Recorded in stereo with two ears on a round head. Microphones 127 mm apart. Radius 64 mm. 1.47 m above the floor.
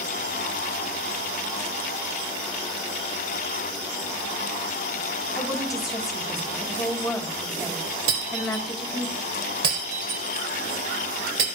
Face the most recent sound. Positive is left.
turn(degrees=-65)  # may be behind; listen again after turning